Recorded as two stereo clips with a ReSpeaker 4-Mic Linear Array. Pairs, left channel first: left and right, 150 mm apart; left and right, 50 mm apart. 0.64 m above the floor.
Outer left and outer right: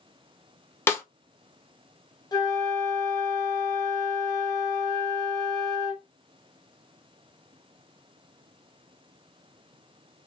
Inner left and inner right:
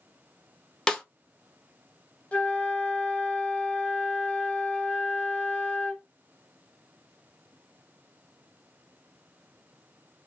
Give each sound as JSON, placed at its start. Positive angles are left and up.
{"t": 0.9, "sound": "a snare drum", "side_deg": 15, "distance_m": 0.6}
{"t": 2.3, "sound": "a flute", "side_deg": 25, "distance_m": 0.7}